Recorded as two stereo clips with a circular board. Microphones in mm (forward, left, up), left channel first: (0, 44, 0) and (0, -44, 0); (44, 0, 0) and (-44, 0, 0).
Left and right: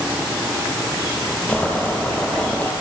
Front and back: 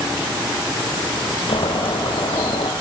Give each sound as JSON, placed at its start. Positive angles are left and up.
{"t": 1.5, "sound": "boiling", "azimuth_deg": 15, "distance_m": 6.0}